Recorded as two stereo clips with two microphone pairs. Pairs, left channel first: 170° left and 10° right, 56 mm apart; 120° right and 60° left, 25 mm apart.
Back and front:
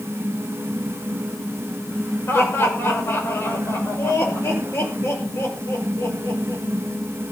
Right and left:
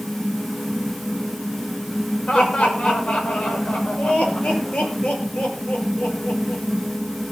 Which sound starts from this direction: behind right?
Laughter, at 2.3 s.